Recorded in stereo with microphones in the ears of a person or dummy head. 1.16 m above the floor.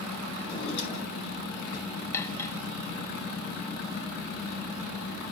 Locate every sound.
0.4 s a drawer: 70° left (ahead or behind), 4.5 m
2.1 s cutlery clinking: 15° left (ahead or behind), 1.0 m